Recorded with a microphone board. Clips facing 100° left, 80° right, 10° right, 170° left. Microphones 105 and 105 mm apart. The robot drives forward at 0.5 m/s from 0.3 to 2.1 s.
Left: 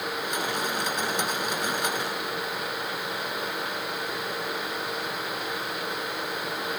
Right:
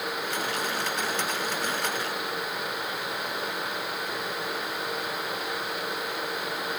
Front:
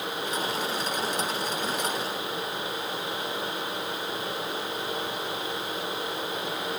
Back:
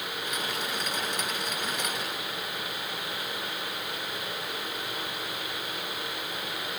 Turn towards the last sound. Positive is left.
No sound to turn to.